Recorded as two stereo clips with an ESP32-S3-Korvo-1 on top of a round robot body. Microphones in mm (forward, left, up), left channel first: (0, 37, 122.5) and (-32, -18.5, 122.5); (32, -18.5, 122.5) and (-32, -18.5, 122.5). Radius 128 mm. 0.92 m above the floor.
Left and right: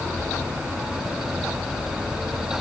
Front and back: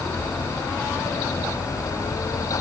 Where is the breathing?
No breathing in this recording.